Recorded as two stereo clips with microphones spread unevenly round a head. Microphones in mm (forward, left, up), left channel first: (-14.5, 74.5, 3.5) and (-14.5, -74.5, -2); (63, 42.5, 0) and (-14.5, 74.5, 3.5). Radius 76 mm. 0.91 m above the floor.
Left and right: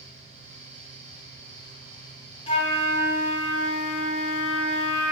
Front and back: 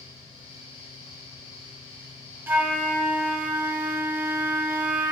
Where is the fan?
40° right, 0.7 m.